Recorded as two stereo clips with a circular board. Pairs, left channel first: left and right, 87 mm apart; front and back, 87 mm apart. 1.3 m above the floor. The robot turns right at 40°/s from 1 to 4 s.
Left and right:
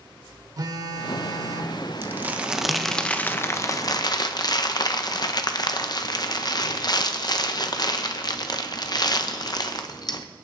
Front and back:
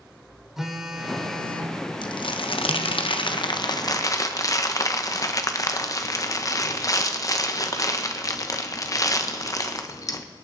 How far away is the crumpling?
About 0.9 m.